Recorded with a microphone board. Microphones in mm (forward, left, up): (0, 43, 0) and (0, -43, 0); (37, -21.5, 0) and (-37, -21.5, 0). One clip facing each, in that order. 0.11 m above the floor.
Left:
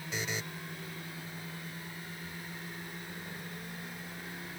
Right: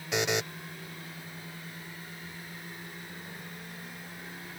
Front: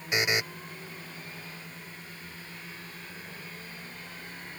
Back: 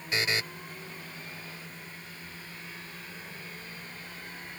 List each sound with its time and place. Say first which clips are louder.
0.1 s a buzzer: right 9 dB, front 2 dB; 75° right